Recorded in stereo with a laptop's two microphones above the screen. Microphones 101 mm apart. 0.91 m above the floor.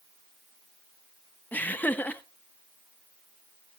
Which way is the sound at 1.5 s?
15° left (ahead or behind).